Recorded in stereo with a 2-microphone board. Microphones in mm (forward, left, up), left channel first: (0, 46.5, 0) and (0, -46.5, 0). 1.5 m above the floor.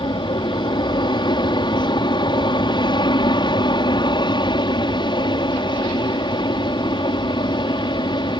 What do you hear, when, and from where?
0.0 s an aircraft: 60° left (ahead or behind)